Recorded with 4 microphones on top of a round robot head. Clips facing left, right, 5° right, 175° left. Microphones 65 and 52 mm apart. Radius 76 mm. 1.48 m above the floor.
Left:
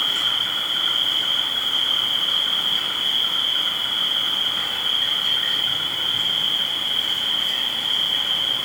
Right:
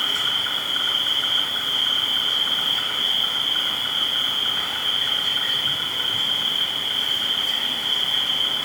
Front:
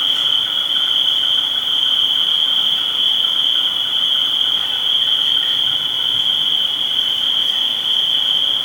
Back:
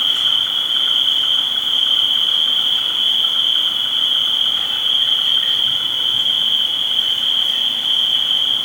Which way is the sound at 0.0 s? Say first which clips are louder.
Even, even; 100° right.